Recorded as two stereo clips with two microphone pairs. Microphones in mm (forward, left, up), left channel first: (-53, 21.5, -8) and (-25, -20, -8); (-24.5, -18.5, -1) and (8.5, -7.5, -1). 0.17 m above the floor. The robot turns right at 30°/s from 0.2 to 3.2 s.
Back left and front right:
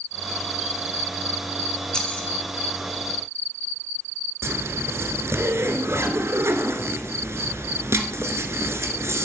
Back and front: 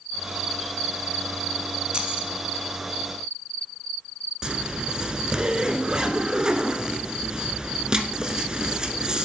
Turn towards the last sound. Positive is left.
turn(degrees=-45)